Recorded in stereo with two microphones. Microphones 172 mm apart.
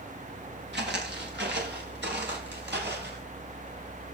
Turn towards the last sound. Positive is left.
turn(degrees=-85)